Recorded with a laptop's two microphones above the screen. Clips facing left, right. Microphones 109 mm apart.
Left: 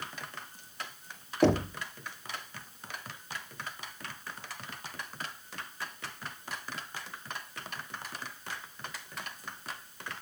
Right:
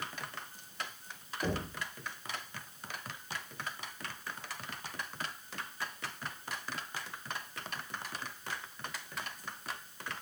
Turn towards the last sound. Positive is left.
turn(degrees=85)